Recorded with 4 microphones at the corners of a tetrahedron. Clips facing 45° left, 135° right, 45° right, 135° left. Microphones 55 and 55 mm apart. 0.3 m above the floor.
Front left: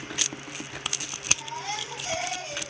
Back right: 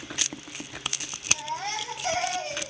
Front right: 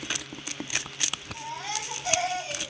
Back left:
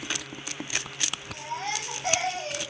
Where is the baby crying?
Straight behind, 9 m.